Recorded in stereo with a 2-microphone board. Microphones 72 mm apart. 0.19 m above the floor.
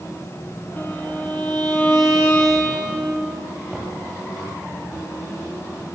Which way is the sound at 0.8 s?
25° left (ahead or behind).